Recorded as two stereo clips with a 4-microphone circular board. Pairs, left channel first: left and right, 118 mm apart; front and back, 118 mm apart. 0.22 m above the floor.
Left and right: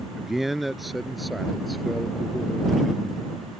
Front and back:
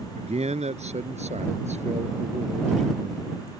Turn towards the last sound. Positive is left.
turn(degrees=180)